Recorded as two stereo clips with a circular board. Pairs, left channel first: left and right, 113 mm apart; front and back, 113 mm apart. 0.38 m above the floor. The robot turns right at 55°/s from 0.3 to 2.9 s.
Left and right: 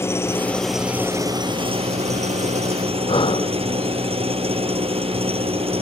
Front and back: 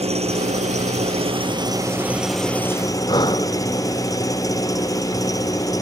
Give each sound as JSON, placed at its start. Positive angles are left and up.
{"t": 0.0, "sound": "an engine running", "azimuth_deg": 160}
{"t": 3.1, "sound": "breathing", "azimuth_deg": 50}